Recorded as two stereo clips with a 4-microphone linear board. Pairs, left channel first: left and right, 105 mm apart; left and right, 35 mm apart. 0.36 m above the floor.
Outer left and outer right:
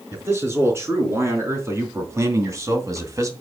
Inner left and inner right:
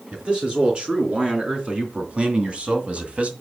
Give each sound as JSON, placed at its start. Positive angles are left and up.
{"t": 0.1, "sound": "a man speaking", "side_deg": -25, "distance_m": 4.0}